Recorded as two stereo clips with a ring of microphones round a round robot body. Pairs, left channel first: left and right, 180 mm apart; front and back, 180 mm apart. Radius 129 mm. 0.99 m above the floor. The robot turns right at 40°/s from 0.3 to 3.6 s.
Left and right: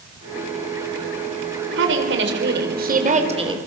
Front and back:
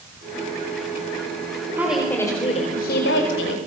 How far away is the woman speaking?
About 4.5 m.